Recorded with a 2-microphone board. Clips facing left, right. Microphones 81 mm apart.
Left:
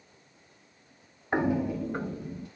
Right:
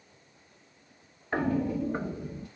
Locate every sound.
1.3 s footsteps: 20° left (ahead or behind), 0.5 m; by 2.5 s 15° right (ahead or behind), 1.4 m